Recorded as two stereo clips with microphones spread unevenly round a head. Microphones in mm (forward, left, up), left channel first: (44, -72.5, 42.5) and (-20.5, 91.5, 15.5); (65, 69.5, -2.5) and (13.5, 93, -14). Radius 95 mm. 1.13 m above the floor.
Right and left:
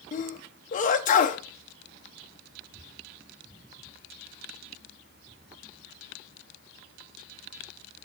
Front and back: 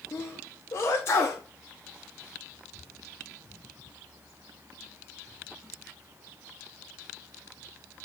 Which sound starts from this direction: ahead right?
A sneeze, at 0.1 s.